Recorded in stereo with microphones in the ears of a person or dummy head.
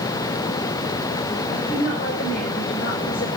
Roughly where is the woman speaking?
Left.